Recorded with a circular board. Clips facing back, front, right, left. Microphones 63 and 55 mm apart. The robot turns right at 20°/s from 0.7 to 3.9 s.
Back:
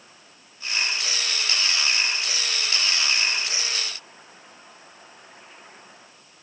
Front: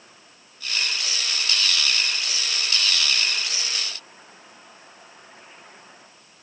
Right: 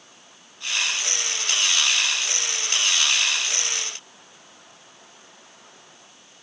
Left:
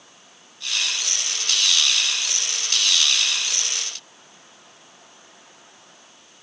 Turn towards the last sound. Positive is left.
No sound to turn to.